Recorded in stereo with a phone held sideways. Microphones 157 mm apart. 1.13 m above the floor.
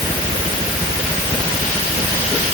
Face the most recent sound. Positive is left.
No sound to turn to.